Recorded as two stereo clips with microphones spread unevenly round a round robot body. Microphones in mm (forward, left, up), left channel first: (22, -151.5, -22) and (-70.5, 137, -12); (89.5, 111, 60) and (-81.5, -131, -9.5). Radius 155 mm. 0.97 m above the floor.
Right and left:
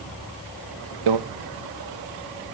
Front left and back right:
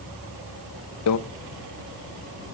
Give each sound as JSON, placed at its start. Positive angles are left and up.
{"t": 1.1, "sound": "a microwave", "azimuth_deg": 95, "distance_m": 0.7}